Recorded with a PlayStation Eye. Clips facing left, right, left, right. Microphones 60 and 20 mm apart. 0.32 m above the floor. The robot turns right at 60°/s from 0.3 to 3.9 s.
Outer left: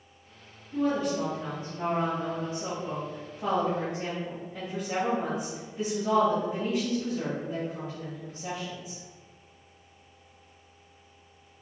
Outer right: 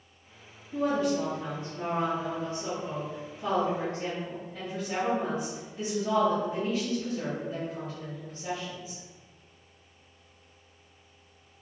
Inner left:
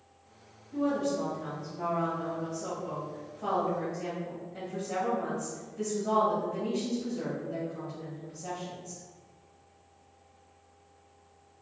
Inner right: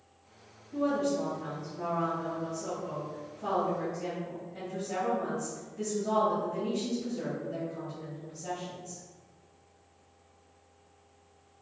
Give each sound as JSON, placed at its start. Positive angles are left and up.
{"t": 0.7, "sound": "a woman speaking", "azimuth_deg": -30, "distance_m": 1.7}